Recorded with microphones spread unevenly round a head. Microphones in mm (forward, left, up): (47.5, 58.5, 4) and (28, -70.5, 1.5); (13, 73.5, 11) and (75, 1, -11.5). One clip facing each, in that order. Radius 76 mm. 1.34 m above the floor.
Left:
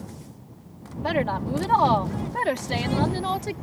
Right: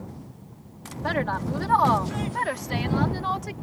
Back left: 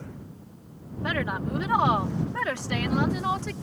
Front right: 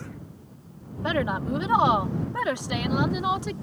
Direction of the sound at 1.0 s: 10° left.